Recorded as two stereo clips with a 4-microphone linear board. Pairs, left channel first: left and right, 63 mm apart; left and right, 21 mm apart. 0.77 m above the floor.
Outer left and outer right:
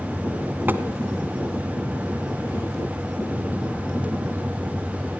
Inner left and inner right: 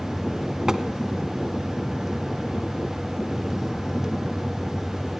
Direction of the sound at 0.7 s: 35° right (ahead or behind).